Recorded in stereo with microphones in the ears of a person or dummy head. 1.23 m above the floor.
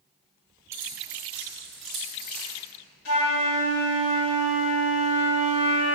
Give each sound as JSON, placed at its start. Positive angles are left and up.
{"t": 0.7, "sound": "keys jangling", "side_deg": -15, "distance_m": 3.0}
{"t": 3.0, "sound": "a flute", "side_deg": 90, "distance_m": 4.0}